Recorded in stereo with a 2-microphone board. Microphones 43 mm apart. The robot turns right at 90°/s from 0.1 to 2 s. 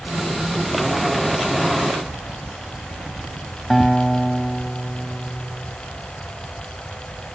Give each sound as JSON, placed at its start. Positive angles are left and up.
{"t": 2.1, "sound": "keys jangling", "side_deg": -30, "distance_m": 0.6}
{"t": 3.7, "sound": "a guitar", "side_deg": 5, "distance_m": 1.0}